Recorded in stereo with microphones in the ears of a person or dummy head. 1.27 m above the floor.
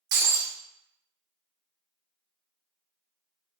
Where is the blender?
No blender in this recording.